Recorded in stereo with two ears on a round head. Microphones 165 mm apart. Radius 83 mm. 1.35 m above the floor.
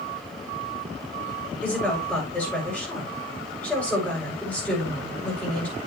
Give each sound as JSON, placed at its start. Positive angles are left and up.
{"t": 1.6, "sound": "a woman speaking", "side_deg": 5, "distance_m": 7.5}